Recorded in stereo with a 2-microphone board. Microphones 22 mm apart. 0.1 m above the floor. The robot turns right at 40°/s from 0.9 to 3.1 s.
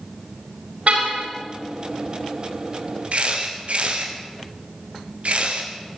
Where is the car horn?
70° right (ahead or behind), 9.5 m; by 1.3 s 85° right, 9.5 m.